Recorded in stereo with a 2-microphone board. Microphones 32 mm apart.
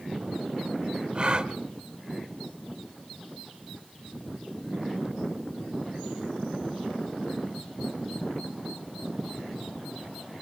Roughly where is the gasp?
Right.